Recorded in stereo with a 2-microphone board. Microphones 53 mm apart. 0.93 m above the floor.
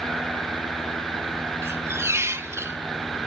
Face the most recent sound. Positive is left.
turn(degrees=-55)  # may be behind; listen again after turning